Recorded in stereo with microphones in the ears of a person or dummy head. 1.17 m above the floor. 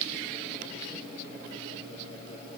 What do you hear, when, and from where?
Only background noise.